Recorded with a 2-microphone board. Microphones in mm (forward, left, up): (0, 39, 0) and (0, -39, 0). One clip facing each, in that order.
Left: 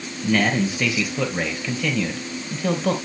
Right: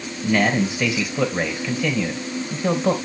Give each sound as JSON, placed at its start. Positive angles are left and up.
{"t": 0.2, "sound": "a man speaking", "side_deg": -10, "distance_m": 4.0}